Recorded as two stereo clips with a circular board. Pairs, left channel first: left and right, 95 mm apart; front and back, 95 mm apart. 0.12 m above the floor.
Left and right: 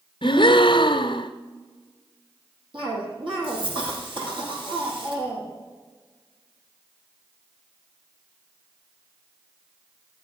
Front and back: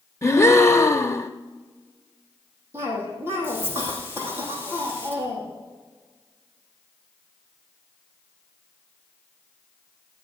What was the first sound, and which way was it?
A gasp, 60° left.